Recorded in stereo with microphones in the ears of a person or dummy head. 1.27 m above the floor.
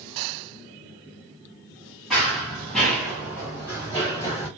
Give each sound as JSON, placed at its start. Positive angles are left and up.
{"t": 2.1, "sound": "running footsteps", "side_deg": 5, "distance_m": 1.7}